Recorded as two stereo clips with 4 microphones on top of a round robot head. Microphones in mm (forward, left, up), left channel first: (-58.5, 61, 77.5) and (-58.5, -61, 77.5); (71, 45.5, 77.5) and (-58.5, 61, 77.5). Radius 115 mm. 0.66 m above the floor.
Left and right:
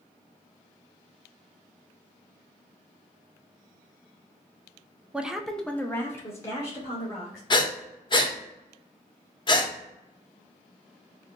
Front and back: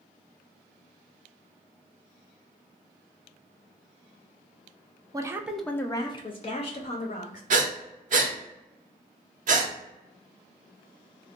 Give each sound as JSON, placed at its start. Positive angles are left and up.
{"t": 5.1, "sound": "a woman speaking", "azimuth_deg": -165, "distance_m": 0.5}
{"t": 7.5, "sound": "breathing", "azimuth_deg": 145, "distance_m": 0.9}